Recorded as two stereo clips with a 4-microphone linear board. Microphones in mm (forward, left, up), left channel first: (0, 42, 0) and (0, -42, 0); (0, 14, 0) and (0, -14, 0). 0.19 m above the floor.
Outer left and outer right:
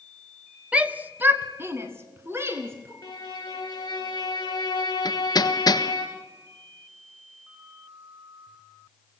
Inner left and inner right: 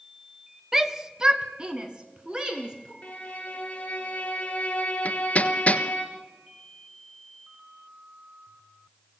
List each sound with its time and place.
0.7 s a shout: 15° right (ahead or behind), 1.1 m; by 2.9 s 30° right (ahead or behind), 2.5 m
3.0 s a violin: 45° left (ahead or behind), 4 m
5.0 s hammering: 50° left (ahead or behind), 1.3 m